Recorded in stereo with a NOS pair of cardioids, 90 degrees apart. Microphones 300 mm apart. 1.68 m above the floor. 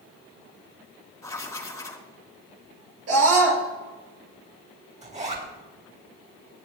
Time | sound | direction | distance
1.2 | writing | 10° left | 3 m
3.1 | a scream | 60° right | 6.5 m
5.0 | a zipper | 25° right | 7 m